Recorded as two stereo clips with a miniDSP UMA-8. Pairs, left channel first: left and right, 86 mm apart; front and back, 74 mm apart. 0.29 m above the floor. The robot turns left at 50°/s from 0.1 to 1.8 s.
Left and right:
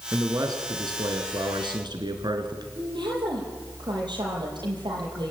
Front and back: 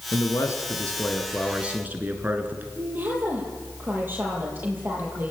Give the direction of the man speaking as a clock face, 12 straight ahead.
1 o'clock.